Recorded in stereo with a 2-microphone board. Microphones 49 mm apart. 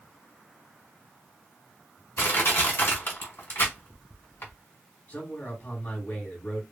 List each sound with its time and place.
2.2 s crushing: 55° left (ahead or behind), 1.6 m
5.1 s a man speaking: 45° left (ahead or behind), 1.8 m